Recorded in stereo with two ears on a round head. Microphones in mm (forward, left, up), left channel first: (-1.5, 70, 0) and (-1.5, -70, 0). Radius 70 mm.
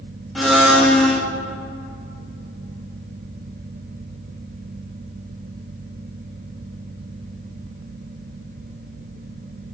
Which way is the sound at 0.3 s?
Centre (ahead or behind).